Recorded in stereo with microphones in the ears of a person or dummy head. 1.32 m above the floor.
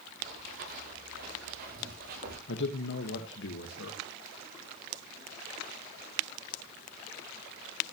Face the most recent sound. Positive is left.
turn(degrees=65)  # may be behind; listen again after turning